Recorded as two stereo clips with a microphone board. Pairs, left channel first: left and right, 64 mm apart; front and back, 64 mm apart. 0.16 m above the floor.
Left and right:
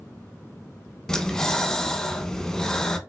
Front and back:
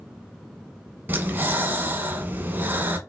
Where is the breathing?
165° left, 0.6 m.